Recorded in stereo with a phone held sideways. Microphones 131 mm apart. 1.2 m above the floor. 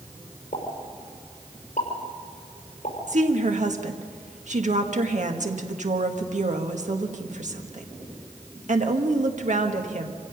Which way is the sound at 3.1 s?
65° right (ahead or behind).